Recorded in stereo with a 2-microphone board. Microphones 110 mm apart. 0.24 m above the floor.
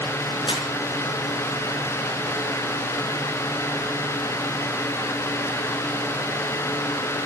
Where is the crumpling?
45° left (ahead or behind), 3.5 m.